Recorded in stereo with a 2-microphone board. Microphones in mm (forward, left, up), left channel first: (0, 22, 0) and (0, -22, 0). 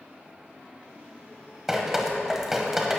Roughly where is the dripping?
Centre.